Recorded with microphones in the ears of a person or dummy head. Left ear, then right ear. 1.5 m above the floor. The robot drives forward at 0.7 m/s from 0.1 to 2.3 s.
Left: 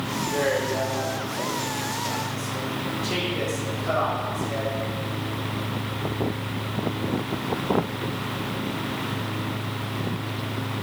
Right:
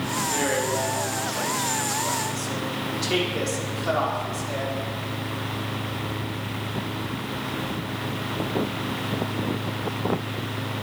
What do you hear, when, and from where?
0.2 s a man speaking: 80° right, 5.5 m